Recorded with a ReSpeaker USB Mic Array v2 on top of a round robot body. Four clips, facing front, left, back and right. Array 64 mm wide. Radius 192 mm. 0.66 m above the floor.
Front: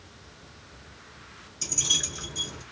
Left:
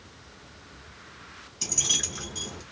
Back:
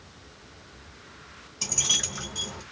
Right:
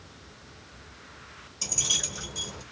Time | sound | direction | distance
1.6 | keys jangling | 155° left | 2.5 m